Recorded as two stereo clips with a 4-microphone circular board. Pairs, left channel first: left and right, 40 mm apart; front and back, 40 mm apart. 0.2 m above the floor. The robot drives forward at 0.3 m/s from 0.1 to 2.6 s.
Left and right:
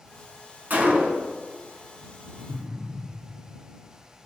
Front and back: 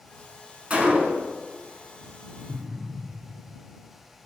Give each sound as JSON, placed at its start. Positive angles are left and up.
{"t": 0.7, "sound": "a gunshot", "azimuth_deg": -125, "distance_m": 0.7}
{"t": 2.5, "sound": "an explosion", "azimuth_deg": -145, "distance_m": 1.1}